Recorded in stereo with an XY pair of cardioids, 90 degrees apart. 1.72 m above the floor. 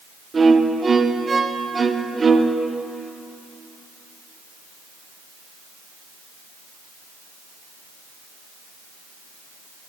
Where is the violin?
35° right, 0.6 m.